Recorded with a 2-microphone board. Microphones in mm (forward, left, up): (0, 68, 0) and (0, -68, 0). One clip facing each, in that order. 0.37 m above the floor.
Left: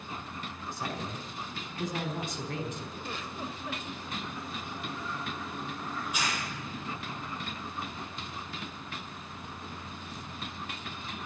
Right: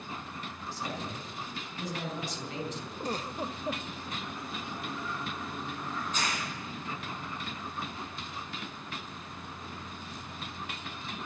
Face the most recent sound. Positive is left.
turn(degrees=10)  # may be behind; listen again after turning